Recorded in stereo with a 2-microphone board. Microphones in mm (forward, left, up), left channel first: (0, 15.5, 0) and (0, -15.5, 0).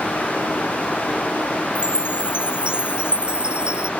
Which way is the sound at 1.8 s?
40° right (ahead or behind).